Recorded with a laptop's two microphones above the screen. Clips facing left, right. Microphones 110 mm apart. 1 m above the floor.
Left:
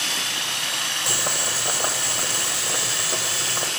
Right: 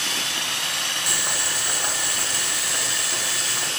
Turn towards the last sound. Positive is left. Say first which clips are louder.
# left 4 dB
turn(degrees=30)  # may be behind; listen again after turning